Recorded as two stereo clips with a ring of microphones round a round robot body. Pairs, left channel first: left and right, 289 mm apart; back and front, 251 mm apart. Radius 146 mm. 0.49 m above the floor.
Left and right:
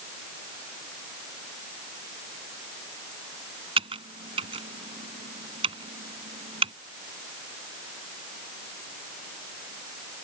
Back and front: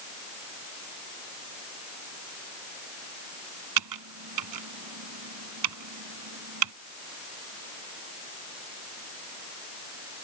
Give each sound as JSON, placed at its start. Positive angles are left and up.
{"t": 3.8, "sound": "typing on a keyboard", "azimuth_deg": -20}